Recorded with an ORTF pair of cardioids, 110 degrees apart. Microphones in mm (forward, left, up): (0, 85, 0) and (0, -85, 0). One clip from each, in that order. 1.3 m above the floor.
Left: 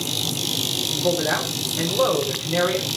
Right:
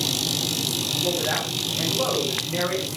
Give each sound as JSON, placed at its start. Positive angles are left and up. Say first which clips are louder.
{"t": 0.9, "sound": "a man speaking", "louder": "left 3 dB", "azimuth_deg": 40, "distance_m": 4.5}